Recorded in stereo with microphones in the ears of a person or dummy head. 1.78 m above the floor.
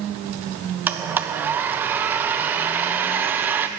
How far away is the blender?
About 0.6 m.